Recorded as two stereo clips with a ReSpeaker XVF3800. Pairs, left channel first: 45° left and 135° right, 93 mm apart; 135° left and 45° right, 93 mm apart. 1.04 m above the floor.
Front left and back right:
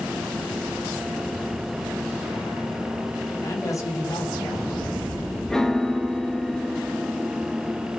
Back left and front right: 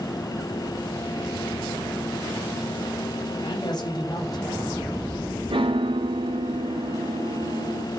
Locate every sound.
3.4 s a man speaking: 100° left, 6 m; by 5.4 s 85° left, 7.5 m
5.5 s a piano: 40° right, 1.1 m